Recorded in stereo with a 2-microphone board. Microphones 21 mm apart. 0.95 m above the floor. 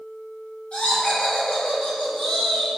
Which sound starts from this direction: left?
Laughter, at 0.7 s.